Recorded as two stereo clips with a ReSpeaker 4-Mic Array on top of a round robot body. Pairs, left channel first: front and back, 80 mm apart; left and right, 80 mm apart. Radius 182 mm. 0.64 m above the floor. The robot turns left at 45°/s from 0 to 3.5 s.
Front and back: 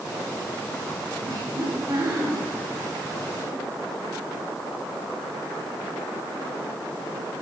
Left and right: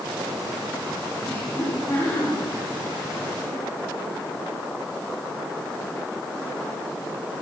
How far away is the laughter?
About 4.5 m.